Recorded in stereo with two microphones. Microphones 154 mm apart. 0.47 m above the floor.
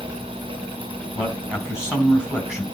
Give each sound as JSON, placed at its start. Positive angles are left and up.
{"t": 1.1, "sound": "a man speaking", "side_deg": -5, "distance_m": 4.0}